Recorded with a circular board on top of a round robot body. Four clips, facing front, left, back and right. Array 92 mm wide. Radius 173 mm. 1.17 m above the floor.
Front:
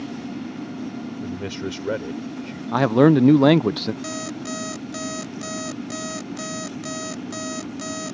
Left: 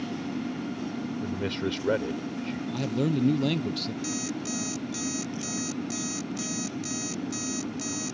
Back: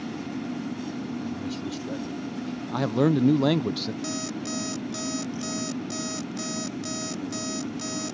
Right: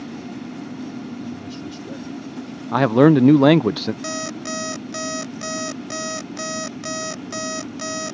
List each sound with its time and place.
1.2 s a man speaking: 45° left
2.7 s a man speaking: 65° right
4.0 s an alarm clock: 80° right